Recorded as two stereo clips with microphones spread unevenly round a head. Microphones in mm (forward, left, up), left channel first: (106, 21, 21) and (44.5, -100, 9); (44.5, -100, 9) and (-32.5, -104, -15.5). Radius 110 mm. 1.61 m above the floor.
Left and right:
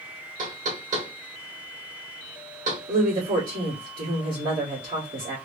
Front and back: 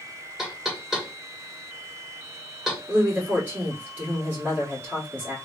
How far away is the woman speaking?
About 2 m.